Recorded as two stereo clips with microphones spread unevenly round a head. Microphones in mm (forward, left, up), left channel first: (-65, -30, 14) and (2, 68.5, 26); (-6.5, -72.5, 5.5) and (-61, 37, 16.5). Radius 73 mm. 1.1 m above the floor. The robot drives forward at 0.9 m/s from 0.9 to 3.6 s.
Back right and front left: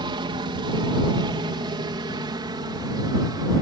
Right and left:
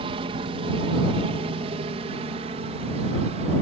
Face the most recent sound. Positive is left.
turn(degrees=100)